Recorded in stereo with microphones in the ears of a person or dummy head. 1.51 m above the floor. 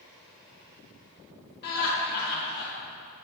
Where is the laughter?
55° left (ahead or behind), 2.5 m.